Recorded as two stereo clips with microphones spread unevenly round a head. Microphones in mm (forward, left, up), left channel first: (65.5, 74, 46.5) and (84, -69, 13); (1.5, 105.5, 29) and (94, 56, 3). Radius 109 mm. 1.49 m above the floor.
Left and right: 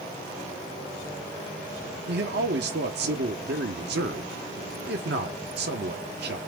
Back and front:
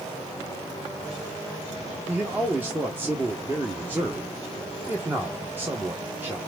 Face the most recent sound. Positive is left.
turn(degrees=-115)